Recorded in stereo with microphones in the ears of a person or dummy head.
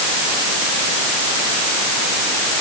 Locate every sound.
Only background noise.